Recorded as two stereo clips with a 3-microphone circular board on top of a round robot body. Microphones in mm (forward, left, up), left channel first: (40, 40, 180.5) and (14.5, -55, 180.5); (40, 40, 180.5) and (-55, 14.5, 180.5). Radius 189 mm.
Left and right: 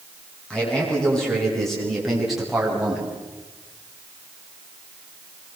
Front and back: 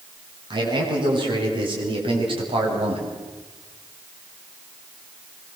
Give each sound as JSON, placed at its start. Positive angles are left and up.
{"t": 0.5, "sound": "a man speaking", "azimuth_deg": 155, "distance_m": 8.0}